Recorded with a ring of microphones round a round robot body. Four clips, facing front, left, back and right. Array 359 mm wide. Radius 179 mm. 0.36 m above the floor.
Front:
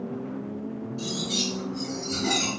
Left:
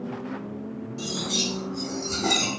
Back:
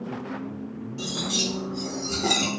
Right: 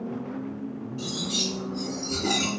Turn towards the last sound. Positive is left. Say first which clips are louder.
# left 2 dB, back 3 dB
turn(degrees=140)